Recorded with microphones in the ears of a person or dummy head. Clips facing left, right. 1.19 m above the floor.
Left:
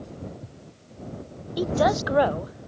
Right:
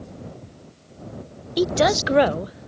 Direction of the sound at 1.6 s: 35° right (ahead or behind).